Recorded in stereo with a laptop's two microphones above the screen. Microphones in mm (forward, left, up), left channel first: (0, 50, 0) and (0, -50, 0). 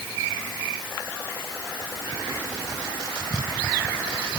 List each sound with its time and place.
Only background noise.